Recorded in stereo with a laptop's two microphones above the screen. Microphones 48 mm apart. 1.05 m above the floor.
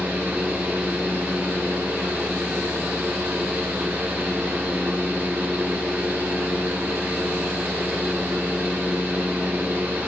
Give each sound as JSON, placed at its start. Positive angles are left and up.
{"t": 0.0, "sound": "a fan", "side_deg": -45, "distance_m": 1.1}